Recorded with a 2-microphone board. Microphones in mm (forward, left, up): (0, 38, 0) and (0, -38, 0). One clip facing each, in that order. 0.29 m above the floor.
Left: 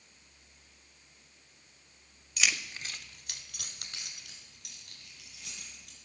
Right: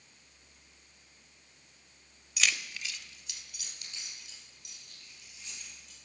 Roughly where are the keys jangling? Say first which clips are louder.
Even; centre.